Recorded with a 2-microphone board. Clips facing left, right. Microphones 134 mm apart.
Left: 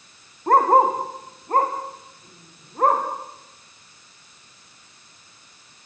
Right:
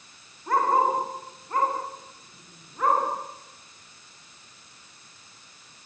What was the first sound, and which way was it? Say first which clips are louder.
A dog barking: left 6 dB; 60° left (ahead or behind).